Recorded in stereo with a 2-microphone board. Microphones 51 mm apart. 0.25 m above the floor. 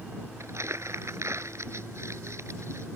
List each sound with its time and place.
0.4 s crumpling: 75° right (ahead or behind)